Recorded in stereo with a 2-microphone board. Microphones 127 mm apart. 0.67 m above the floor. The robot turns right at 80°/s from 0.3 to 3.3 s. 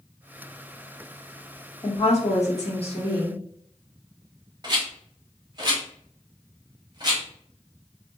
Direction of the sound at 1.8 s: 35° left.